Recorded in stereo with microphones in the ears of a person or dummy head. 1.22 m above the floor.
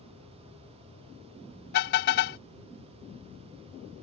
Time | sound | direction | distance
1.7 | a car horn | 60° left (ahead or behind) | ?